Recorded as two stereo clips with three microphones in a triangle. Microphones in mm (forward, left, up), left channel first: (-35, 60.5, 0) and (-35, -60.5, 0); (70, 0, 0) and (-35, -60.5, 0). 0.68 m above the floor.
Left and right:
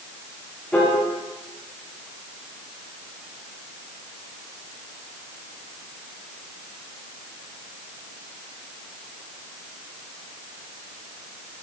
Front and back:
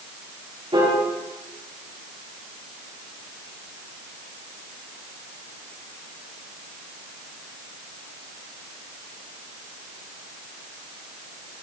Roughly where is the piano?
Behind.